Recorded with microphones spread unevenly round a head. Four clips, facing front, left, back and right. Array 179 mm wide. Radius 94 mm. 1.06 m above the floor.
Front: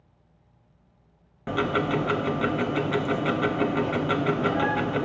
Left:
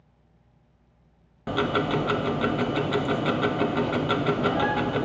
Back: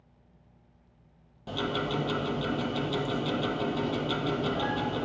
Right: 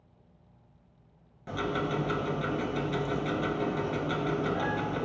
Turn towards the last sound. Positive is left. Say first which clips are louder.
# left 6 dB, front 6 dB
turn(degrees=40)